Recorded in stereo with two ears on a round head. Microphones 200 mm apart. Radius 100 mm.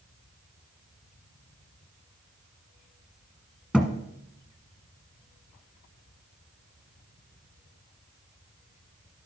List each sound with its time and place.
3.7 s a thud: 5° right (ahead or behind), 1.3 m